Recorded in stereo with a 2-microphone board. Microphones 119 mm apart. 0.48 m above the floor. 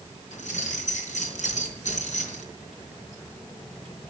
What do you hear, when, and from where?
0.3 s keys jangling: 80° left, 3.5 m